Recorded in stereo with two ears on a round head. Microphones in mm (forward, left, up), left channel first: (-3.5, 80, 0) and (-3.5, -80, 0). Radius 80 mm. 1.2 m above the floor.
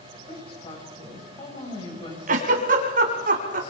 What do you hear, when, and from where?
0.3 s a woman speaking: 30° left (ahead or behind), 6 m
2.3 s a giggle: 50° right (ahead or behind), 2.5 m